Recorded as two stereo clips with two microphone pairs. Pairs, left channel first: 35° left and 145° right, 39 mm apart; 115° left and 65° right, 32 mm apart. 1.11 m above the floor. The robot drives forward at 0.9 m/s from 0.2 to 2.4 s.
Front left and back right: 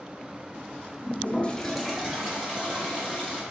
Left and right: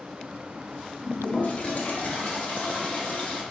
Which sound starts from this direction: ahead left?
A toilet flushing, at 1.0 s.